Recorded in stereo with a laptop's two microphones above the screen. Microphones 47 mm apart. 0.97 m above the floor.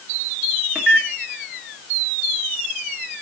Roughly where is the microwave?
Right.